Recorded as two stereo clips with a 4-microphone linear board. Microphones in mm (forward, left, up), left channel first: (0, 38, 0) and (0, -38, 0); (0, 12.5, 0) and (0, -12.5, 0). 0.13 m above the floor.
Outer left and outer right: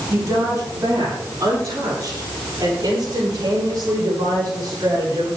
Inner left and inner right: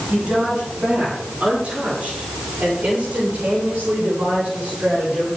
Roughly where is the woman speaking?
Right.